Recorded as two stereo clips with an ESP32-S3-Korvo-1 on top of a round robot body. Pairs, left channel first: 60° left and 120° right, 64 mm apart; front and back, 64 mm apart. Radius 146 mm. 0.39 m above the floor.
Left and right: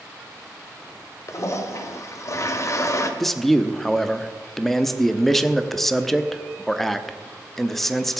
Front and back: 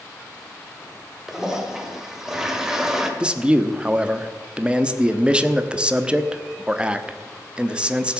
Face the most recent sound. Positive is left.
turn(degrees=140)